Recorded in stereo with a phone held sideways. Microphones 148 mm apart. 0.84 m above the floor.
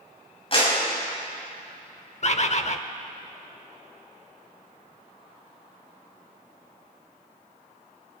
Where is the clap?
40° left (ahead or behind), 5.5 m.